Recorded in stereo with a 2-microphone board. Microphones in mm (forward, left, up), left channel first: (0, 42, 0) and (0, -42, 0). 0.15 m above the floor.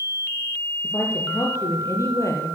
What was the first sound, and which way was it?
A woman speaking, 35° left (ahead or behind).